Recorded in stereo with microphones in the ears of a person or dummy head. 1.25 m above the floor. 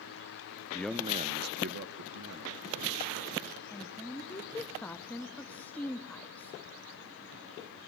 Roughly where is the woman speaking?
Centre.